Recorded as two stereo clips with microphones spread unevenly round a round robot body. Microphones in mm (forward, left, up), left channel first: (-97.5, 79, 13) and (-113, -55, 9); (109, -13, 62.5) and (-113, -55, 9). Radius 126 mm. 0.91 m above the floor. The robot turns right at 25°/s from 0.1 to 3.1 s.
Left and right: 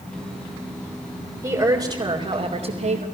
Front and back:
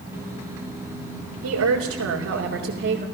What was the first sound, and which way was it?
A woman speaking, 155° right.